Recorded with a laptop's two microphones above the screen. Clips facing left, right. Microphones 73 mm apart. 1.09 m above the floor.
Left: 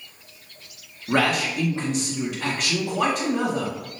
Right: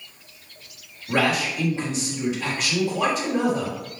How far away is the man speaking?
About 1.8 m.